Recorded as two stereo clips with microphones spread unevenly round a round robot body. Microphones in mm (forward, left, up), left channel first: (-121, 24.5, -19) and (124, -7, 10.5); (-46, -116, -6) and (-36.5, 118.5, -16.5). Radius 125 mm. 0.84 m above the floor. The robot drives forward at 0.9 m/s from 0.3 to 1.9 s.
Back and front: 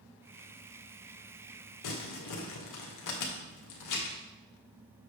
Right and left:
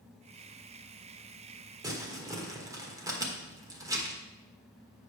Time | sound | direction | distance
1.8 | crumpling | 165° left | 1.5 m